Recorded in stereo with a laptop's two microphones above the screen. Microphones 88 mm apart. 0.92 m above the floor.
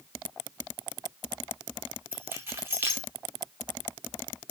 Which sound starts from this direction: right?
Keys jangling, at 2.1 s.